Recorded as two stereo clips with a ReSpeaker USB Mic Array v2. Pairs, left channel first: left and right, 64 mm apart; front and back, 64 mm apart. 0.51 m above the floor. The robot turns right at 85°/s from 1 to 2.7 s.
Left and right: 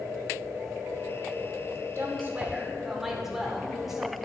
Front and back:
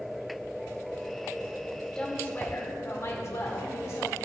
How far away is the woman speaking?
About 1.6 m.